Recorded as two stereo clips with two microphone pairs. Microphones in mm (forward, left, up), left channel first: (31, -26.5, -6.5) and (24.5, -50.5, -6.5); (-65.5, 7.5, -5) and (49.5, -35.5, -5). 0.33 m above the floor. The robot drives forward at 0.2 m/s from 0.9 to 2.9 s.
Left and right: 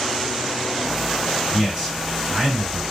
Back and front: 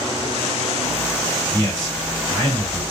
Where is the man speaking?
175° left, 1.7 m.